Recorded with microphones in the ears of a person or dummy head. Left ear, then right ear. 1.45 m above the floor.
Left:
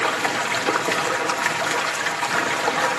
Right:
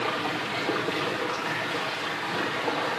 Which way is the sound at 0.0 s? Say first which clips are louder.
Left 6 dB; 65° left (ahead or behind).